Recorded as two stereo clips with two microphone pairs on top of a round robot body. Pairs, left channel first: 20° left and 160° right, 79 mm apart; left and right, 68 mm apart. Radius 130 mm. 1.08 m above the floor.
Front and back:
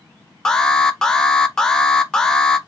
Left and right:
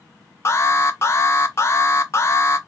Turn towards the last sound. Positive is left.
turn(degrees=70)